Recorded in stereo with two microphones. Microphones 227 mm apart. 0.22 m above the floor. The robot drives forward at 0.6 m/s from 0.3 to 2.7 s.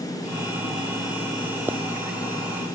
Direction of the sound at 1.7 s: 10° right (ahead or behind).